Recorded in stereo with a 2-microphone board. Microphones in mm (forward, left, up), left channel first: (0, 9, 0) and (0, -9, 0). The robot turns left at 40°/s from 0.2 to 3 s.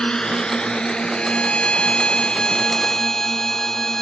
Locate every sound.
0.0 s a drone: 60° left (ahead or behind); by 4.0 s 35° left (ahead or behind)
1.1 s a violin: 100° left; by 4.0 s 25° left